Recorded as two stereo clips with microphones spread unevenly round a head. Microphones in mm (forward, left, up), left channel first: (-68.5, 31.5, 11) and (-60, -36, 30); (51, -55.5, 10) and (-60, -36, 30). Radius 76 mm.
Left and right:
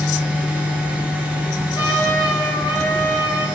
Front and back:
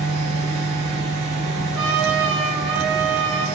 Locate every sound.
0.0 s a fan: 160° right, 1.8 m
1.7 s a trumpet: 145° left, 1.4 m